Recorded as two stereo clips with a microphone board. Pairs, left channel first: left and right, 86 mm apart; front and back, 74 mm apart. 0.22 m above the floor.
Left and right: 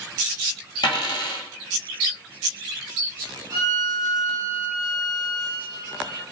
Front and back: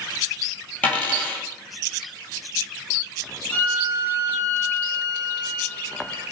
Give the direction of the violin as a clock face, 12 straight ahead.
2 o'clock.